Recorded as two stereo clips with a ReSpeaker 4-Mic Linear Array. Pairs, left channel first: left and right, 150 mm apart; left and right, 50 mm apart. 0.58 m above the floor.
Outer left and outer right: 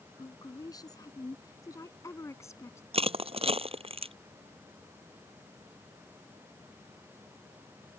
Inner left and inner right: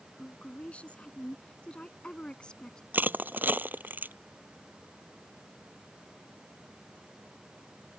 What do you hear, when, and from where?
0.2 s a woman speaking: 25° left (ahead or behind); by 2.8 s 15° left (ahead or behind)
2.9 s crushing: 40° right (ahead or behind)